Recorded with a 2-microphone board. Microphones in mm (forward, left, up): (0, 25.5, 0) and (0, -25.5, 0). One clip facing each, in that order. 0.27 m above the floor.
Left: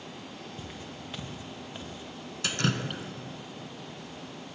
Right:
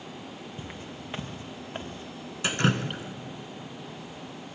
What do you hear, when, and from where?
0.6 s footsteps: 25° right (ahead or behind), 3 m; by 2.3 s 40° right (ahead or behind), 3.5 m
2.4 s dripping: 25° right (ahead or behind), 1.7 m